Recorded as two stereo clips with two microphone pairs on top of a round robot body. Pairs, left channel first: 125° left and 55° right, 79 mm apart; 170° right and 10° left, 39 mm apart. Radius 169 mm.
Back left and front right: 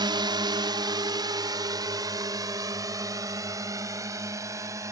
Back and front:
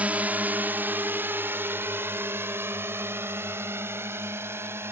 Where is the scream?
No scream in this recording.